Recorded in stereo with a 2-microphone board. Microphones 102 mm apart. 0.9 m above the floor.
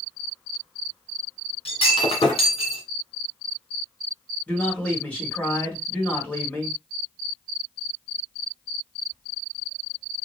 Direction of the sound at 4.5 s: 15° left (ahead or behind).